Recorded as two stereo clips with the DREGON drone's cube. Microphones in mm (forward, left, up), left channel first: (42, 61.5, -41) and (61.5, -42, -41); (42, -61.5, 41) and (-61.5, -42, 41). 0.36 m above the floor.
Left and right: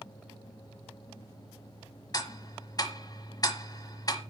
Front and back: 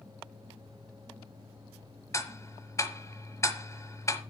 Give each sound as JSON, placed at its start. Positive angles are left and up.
{"t": 2.1, "sound": "ticking", "azimuth_deg": 50, "distance_m": 1.2}